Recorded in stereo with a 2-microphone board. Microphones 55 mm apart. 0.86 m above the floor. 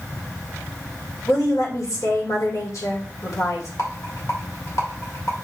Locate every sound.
1.3 s a woman speaking: 65° left (ahead or behind), 3 m
3.8 s a rattle: 55° left (ahead or behind), 2.5 m